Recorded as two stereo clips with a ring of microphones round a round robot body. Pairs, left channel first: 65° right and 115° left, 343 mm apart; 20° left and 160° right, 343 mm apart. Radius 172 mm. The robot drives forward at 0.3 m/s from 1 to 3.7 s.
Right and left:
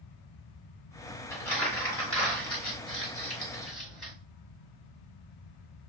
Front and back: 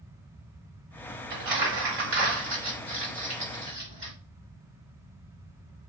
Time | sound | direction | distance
1.3 | crumpling | 150° right | 1.9 m